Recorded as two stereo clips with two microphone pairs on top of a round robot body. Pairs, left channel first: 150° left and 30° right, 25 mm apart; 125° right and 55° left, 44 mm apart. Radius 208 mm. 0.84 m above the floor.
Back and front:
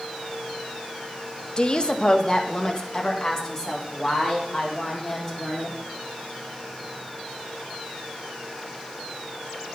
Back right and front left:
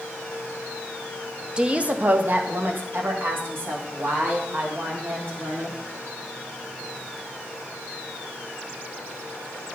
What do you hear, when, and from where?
1.6 s a woman speaking: 120° left, 0.8 m; by 5.8 s 75° left, 3 m